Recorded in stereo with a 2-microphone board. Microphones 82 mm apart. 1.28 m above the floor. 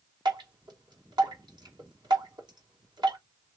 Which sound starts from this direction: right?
Dripping, at 0.2 s.